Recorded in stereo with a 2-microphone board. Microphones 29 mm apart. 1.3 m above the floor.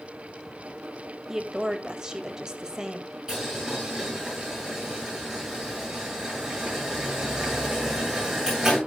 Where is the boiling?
20° right (ahead or behind), 8.5 m.